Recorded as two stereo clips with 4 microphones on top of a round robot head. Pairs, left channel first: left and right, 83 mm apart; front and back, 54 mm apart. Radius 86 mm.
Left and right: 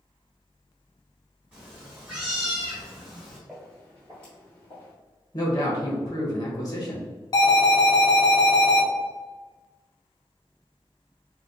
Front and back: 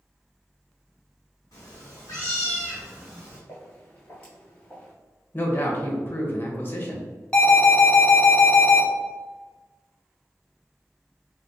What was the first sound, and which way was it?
A cat meowing, 10° right.